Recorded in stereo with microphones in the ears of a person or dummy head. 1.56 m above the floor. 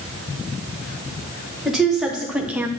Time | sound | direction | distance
1.6 | a woman speaking | 5° right (ahead or behind) | 1.6 m